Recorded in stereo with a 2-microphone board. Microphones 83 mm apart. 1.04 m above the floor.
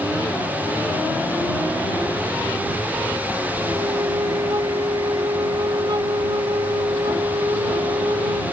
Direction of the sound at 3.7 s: 60° right (ahead or behind).